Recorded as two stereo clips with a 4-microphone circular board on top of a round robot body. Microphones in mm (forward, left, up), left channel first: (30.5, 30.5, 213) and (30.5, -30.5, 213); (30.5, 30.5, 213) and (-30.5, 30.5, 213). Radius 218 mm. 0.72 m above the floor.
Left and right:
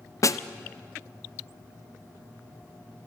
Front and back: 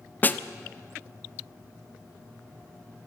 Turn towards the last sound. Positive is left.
turn(degrees=60)